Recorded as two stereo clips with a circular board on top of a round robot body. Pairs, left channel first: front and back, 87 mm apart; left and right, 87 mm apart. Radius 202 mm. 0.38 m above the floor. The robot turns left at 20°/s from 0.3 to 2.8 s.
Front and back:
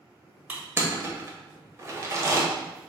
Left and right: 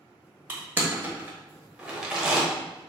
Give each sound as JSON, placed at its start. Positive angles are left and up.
{"t": 0.5, "sound": "crushing", "azimuth_deg": -135, "distance_m": 1.3}